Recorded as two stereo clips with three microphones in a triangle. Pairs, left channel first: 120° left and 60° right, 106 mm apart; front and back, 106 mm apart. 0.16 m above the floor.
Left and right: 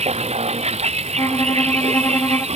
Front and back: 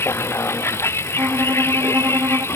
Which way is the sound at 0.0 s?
70° right.